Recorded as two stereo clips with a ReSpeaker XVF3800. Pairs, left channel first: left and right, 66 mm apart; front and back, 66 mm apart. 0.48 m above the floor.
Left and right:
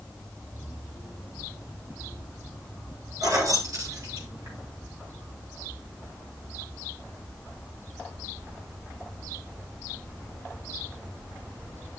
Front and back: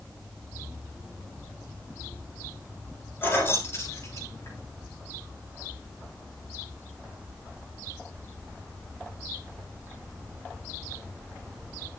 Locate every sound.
3.2 s keys jangling: 55° right, 6.5 m; by 4.6 s 40° right, 6.5 m